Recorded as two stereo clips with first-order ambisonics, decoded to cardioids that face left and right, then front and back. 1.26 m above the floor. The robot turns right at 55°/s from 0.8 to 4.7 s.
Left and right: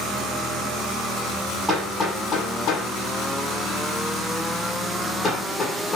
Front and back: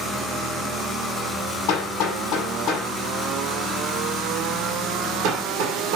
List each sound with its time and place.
1.7 s hammering: 5° right, 6 m; by 6.0 s 165° left, 6 m